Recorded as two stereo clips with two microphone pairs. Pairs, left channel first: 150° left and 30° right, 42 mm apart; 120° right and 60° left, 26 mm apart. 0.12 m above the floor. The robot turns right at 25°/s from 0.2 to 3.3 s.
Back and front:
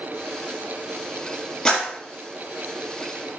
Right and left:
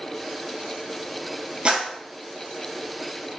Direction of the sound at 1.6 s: 85° left.